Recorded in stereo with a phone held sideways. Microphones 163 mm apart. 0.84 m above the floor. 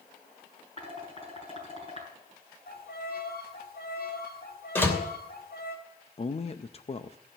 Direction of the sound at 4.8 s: 15° left (ahead or behind).